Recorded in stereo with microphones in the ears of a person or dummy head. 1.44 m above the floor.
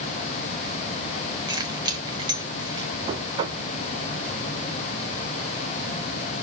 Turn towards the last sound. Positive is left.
turn(degrees=-30)  # may be behind; listen again after turning